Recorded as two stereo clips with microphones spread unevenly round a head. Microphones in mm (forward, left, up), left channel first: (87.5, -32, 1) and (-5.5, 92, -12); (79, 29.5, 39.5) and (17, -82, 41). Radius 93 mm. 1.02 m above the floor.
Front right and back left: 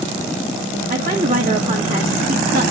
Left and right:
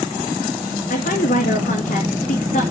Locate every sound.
0.9 s a woman speaking: 90° left, 2.5 m